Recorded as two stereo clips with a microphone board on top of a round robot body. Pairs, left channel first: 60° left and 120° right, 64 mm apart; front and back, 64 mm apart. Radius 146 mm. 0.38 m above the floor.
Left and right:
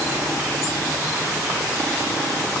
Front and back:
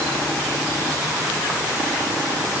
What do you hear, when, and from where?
Only background noise.